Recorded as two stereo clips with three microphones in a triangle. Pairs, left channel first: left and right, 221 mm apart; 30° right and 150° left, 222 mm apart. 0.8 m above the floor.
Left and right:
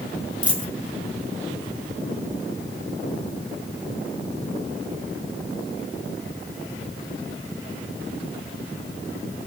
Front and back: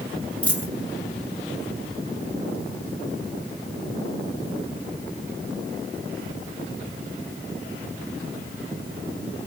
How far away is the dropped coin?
About 1.0 m.